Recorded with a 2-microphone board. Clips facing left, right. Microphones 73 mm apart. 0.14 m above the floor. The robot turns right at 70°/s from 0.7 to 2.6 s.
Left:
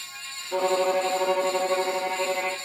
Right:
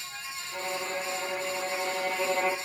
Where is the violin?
65° left, 1.7 m; by 2.6 s 165° right, 1.7 m.